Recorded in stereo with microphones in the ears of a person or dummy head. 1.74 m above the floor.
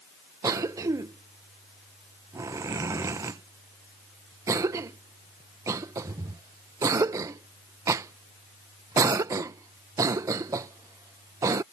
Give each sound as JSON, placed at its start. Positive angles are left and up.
{"t": 0.4, "sound": "a cough", "side_deg": -20}